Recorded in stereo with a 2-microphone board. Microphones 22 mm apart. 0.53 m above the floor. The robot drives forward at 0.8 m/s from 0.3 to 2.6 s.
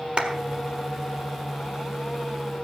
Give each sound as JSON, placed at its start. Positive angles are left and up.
{"t": 0.2, "sound": "a clap", "side_deg": -50, "distance_m": 1.4}